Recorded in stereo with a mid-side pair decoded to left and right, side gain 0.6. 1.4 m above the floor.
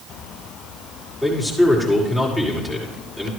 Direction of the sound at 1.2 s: 10° right.